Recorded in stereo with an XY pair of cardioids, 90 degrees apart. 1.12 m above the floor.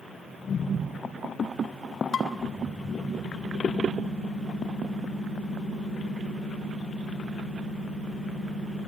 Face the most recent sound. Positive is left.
turn(degrees=55)